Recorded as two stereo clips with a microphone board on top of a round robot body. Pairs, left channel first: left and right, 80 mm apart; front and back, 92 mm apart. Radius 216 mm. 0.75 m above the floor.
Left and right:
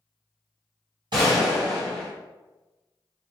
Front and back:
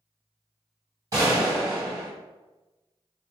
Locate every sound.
1.1 s a gunshot: 125° right, 1.6 m